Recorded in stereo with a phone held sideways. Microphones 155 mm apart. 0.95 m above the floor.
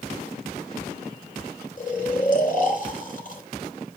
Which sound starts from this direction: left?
Snoring, at 1.8 s.